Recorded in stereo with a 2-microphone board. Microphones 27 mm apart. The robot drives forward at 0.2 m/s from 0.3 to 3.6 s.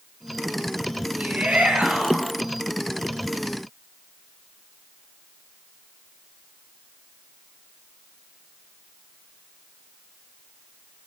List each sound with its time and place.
1.2 s a shout: 50° right (ahead or behind), 7 m; by 2.2 s 45° right (ahead or behind), 7 m